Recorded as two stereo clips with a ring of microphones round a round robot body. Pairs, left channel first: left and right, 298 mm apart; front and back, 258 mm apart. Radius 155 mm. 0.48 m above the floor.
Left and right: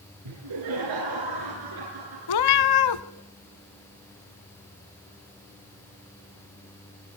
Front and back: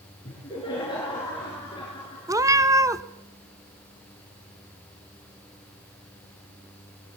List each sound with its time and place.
0.2 s laughter: 75° right, 9.5 m
2.3 s a cat meowing: 100° left, 1.2 m